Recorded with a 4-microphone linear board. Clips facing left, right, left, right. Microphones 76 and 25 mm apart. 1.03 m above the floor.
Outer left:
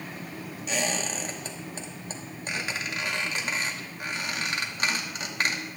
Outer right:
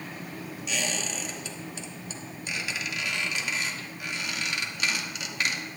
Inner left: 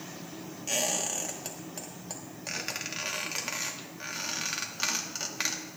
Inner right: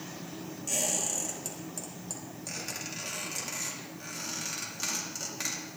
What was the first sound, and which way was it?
A squeak, 40° left (ahead or behind).